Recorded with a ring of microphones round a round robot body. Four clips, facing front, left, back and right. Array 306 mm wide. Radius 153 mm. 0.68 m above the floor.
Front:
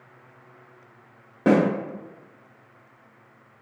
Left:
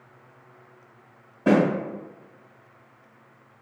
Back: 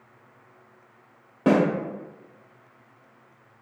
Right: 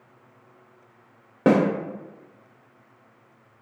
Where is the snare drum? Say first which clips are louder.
Right 1 dB, front 1 dB; 80° right, 0.9 m.